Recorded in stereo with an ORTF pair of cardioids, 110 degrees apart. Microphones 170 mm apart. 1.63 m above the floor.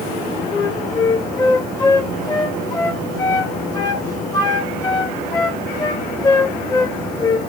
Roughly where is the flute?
Ahead.